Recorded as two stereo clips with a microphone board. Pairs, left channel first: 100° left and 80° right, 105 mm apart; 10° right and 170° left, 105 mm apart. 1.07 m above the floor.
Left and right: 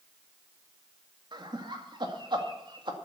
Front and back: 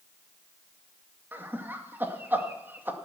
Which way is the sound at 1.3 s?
120° right.